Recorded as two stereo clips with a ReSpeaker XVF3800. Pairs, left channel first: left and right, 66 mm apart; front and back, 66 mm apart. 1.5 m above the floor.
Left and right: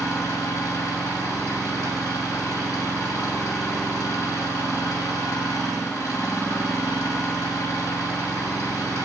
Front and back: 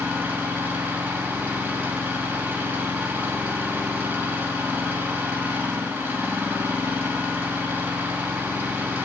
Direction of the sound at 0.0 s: 115° left.